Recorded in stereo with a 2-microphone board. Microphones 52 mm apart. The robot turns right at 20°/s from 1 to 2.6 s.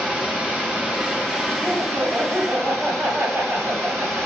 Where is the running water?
145° right, 7 m; by 4.3 s 115° right, 7 m.